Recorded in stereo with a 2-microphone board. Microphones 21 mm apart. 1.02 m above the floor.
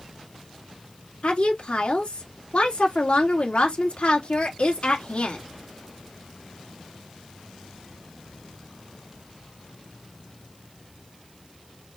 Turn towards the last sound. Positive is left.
turn(degrees=70)  # may be behind; listen again after turning